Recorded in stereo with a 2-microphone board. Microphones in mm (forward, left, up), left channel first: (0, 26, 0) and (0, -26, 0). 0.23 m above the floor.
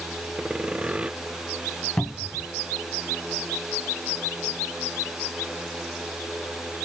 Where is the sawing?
20° right (ahead or behind).